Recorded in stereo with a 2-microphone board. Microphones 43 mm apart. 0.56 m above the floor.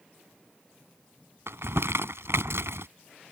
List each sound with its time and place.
1.5 s crumpling: 80° right